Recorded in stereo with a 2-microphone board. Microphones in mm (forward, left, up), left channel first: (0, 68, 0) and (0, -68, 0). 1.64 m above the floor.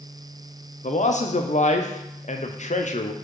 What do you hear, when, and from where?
0.8 s a man speaking: 65° left (ahead or behind), 0.7 m